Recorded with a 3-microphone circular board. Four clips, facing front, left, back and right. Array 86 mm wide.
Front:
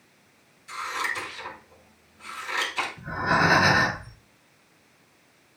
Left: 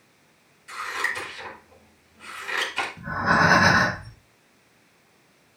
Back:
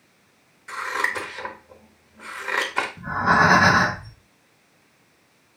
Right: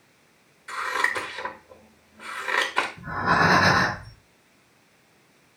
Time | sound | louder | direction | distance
0.7 | scissors | right 4 dB, back 4 dB | 145° right | 1.5 m
3.0 | breathing | left 2 dB, back 5 dB | 170° left | 3 m